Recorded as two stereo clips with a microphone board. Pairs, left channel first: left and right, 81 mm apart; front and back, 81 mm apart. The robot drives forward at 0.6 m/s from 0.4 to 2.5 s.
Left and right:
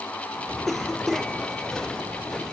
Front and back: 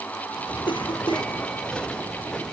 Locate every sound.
0.7 s a cough: straight ahead, 4.5 m